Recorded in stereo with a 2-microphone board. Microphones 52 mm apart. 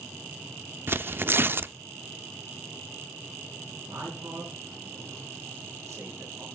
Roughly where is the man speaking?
Right.